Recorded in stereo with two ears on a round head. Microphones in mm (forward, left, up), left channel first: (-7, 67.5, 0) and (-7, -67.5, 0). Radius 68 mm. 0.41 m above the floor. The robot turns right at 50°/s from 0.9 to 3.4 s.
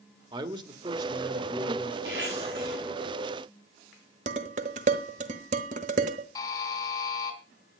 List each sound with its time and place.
0.3 s a man speaking: 65° right, 1.4 m; by 1.9 s 15° right, 1.4 m
2.0 s a zipper: 95° right, 9 m; by 2.8 s 55° right, 9 m
4.3 s dishes clattering: 50° right (ahead or behind), 1.5 m
6.3 s a buzzer: 20° left (ahead or behind), 3 m